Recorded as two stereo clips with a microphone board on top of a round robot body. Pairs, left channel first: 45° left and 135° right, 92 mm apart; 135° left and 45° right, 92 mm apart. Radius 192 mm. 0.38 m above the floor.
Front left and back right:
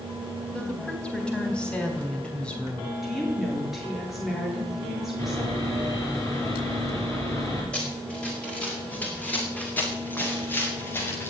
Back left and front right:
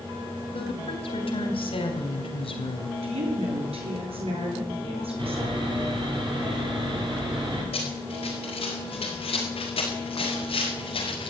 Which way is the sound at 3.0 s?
45° right.